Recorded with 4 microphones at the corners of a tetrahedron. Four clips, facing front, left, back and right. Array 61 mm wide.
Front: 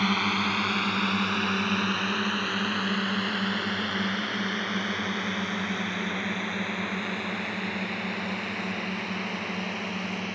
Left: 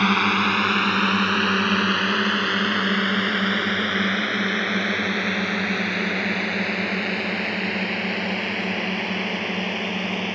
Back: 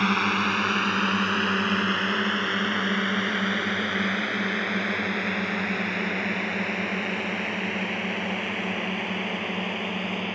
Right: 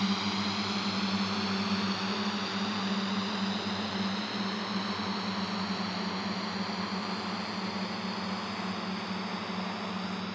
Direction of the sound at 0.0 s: 105° left.